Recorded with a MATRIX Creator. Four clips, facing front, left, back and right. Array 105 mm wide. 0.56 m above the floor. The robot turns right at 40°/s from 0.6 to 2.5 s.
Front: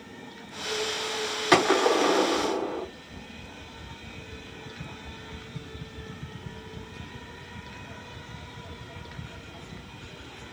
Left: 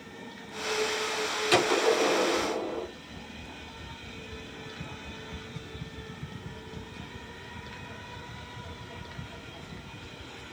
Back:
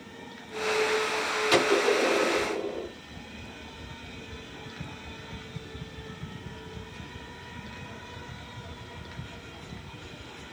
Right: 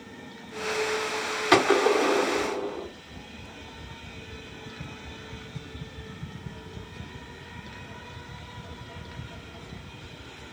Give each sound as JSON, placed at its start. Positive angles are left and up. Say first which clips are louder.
{"t": 1.5, "sound": "a gunshot", "louder": "right 4 dB, front 3 dB", "azimuth_deg": -35, "distance_m": 3.0}